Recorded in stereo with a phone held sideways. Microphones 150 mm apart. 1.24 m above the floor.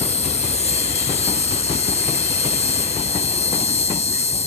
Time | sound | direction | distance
0.0 | an insect | 45° left (ahead or behind) | ?